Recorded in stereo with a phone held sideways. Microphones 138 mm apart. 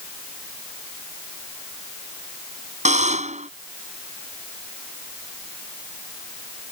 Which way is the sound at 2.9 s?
55° right (ahead or behind).